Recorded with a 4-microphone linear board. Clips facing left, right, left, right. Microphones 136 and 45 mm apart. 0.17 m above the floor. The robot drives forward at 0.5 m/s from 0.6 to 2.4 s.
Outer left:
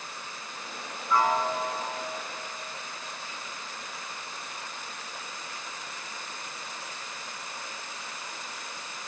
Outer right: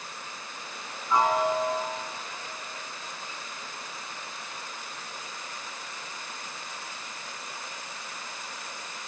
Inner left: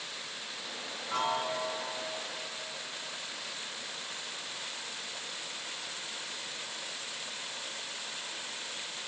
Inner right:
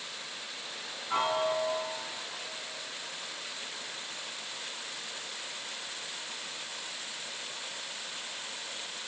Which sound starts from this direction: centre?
A piano, at 1.1 s.